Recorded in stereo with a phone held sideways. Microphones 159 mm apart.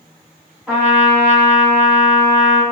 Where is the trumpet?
10° right (ahead or behind), 1.0 m.